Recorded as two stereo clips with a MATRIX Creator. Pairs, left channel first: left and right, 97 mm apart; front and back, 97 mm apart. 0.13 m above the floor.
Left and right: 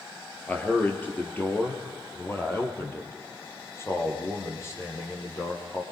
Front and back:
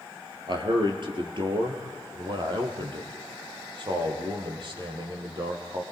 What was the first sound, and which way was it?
A man speaking, 160° left.